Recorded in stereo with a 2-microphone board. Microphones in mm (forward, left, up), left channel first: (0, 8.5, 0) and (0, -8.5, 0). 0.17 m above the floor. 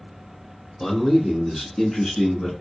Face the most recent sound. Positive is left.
turn(degrees=55)  # may be behind; listen again after turning